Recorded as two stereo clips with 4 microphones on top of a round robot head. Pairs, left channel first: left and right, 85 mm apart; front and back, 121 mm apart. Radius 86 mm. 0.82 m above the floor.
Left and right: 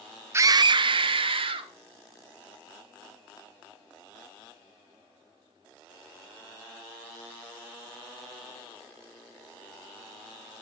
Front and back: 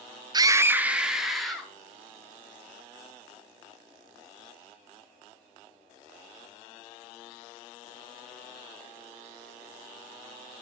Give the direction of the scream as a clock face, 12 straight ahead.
5 o'clock.